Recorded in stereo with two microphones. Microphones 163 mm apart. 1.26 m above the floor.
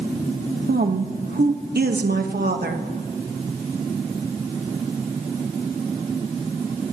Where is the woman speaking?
85° right, 1.3 m.